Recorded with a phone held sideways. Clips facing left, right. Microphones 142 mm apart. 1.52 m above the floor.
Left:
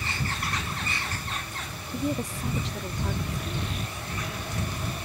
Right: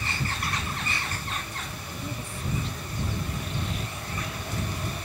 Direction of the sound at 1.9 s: 80° left.